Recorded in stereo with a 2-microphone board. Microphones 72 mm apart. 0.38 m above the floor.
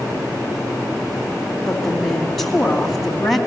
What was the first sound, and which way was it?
A woman speaking, centre (ahead or behind).